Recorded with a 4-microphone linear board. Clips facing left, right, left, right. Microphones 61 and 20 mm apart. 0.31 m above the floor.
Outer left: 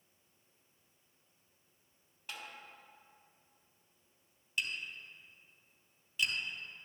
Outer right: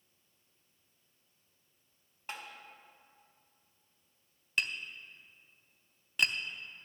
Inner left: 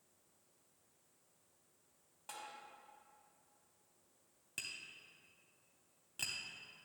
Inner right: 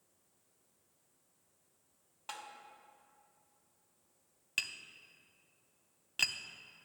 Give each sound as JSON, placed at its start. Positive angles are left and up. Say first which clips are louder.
{"t": 2.3, "sound": "tapping", "louder": "outer right 3 dB, inner right 4 dB", "side_deg": -35, "distance_m": 1.5}
{"t": 4.6, "sound": "tapping", "louder": "outer right 3 dB, inner right 8 dB", "side_deg": -70, "distance_m": 0.7}